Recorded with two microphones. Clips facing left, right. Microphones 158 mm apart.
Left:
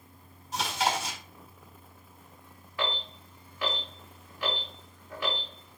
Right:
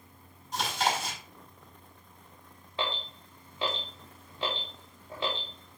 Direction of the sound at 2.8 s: 25° right (ahead or behind).